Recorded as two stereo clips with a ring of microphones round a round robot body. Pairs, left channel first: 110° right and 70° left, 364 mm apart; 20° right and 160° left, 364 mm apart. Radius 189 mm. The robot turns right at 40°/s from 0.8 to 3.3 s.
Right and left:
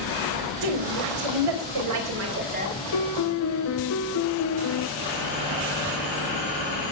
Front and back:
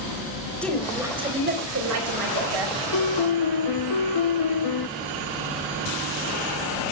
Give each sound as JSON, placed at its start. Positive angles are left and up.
{"t": 0.6, "sound": "a woman speaking", "azimuth_deg": 65, "distance_m": 4.5}
{"t": 2.9, "sound": "a piano", "azimuth_deg": -75, "distance_m": 1.0}